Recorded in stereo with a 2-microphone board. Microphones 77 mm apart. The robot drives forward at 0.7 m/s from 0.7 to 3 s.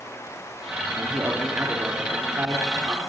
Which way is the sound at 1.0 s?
35° right (ahead or behind).